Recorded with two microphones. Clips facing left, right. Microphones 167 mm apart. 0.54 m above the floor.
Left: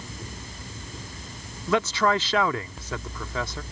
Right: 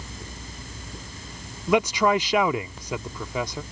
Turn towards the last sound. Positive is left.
turn(degrees=-15)  # may be behind; listen again after turning